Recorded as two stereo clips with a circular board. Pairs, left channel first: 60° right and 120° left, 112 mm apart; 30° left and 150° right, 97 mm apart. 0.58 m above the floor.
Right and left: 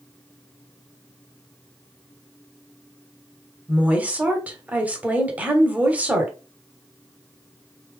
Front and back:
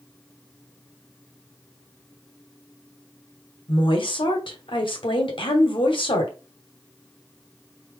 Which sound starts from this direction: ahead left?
A woman speaking, at 3.7 s.